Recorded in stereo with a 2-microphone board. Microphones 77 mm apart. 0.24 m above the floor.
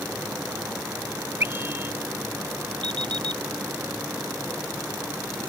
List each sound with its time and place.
1.4 s a scream: 30° right (ahead or behind)
2.8 s an alarm clock: 80° right